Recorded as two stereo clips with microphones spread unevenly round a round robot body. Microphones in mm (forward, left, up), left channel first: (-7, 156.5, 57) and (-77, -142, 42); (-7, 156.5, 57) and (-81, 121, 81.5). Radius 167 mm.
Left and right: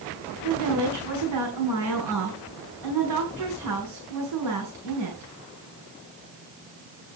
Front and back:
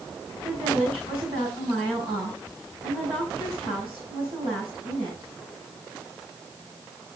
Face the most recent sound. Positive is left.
turn(degrees=-105)